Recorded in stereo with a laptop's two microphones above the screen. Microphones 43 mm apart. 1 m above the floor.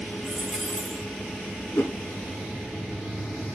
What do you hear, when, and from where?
0.2 s a dropped coin: 10° left (ahead or behind), 2.0 m
1.8 s a whoosh: 75° left (ahead or behind), 3 m